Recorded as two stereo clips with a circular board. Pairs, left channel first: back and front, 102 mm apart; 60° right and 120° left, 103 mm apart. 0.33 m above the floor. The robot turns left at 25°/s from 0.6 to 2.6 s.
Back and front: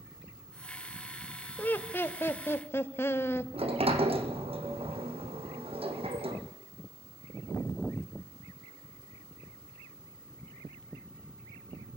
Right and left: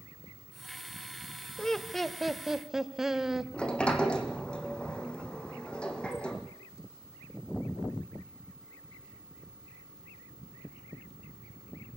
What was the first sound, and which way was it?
Laughter, 135° right.